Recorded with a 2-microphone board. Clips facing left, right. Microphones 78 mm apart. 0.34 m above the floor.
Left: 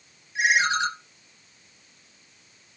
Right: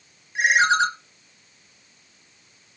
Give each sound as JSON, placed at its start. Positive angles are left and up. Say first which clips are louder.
{"t": 0.3, "sound": "a ringtone", "louder": "right 4 dB", "side_deg": -70, "distance_m": 1.4}